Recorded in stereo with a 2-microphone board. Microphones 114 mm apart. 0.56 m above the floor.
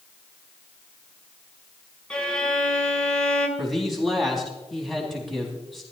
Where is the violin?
10° left (ahead or behind), 2.0 m.